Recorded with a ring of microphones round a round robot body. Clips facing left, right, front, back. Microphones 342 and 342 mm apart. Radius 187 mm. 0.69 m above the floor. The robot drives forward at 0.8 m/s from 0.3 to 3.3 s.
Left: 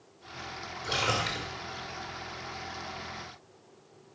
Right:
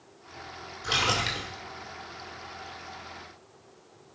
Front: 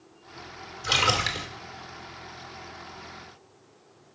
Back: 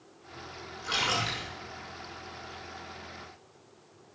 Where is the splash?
10° right, 2.5 m.